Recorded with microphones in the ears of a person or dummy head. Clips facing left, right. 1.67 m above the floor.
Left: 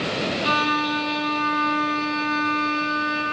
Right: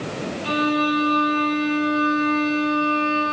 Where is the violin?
60° left (ahead or behind), 0.9 m.